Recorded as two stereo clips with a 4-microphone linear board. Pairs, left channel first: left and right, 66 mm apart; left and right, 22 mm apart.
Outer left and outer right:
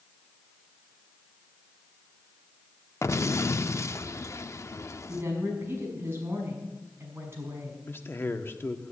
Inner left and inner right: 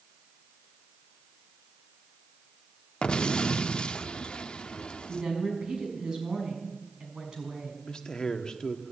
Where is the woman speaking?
35° right (ahead or behind), 6 m.